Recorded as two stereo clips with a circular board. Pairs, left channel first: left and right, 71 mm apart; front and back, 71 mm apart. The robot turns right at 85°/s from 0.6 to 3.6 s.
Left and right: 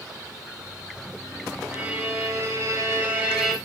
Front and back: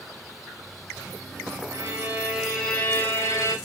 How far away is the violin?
About 1.7 m.